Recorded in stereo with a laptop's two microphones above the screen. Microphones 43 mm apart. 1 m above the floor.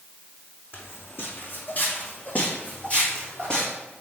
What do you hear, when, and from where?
0.7 s footsteps: 60° left (ahead or behind), 2.5 m; by 3.7 s 20° left (ahead or behind), 2.5 m